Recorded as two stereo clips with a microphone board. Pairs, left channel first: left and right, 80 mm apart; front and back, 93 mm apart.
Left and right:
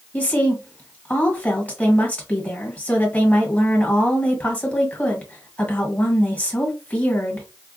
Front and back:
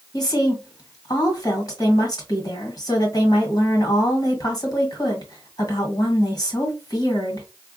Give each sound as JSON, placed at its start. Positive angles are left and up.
{"t": 0.1, "sound": "a woman speaking", "azimuth_deg": 20, "distance_m": 1.7}